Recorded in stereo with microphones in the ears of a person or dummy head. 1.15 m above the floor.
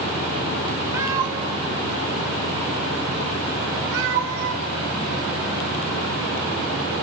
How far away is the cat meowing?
About 1.6 m.